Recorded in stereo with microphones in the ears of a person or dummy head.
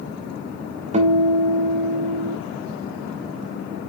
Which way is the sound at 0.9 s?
35° right (ahead or behind).